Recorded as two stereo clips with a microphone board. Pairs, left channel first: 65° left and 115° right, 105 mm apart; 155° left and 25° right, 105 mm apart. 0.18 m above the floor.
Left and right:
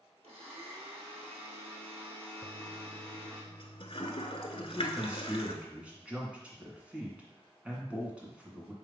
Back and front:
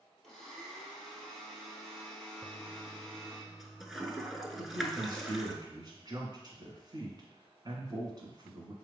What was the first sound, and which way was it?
A blender, 120° right.